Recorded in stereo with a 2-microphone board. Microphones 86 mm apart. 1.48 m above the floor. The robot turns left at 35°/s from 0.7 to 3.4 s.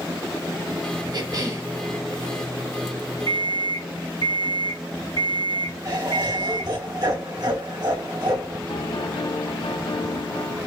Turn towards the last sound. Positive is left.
turn(degrees=70)  # may be behind; listen again after turning